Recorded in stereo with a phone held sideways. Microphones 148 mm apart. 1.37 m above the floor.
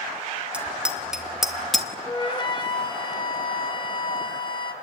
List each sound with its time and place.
0.5 s a bicycle bell: 10° right (ahead or behind), 2 m; by 1.9 s centre (ahead or behind), 1.6 m
2.1 s a flute: 35° left (ahead or behind), 2 m